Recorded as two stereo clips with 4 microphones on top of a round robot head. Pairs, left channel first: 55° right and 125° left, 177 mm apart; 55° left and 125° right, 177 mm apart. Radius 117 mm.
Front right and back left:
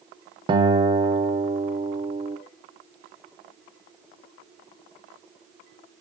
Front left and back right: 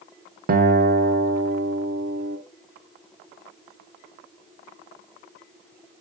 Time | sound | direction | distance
0.5 | a guitar | 170° right | 1.0 m